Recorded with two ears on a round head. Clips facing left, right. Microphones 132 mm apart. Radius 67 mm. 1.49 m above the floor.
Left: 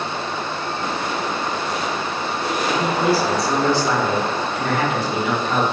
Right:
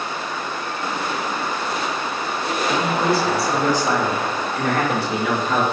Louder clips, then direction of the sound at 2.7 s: Left 1 dB; 10° left (ahead or behind).